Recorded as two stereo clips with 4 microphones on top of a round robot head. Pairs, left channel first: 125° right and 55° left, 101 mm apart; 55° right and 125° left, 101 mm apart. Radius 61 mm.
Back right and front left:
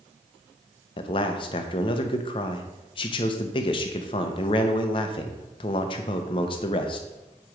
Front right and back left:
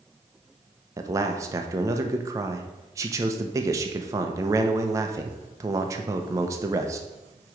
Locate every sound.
1.0 s a man speaking: 170° right, 0.7 m